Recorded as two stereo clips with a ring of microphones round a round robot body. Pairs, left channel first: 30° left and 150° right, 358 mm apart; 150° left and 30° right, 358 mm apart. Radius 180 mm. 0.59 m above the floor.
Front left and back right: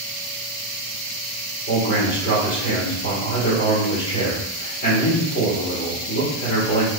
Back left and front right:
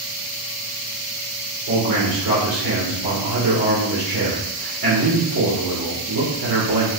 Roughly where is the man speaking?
Ahead.